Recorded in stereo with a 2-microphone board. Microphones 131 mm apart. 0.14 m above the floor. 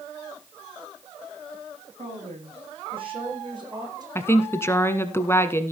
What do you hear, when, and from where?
2.0 s a woman speaking: 55° right (ahead or behind), 6.5 m; by 4.0 s 30° right (ahead or behind), 6.5 m
4.2 s a woman speaking: 20° left (ahead or behind), 1.1 m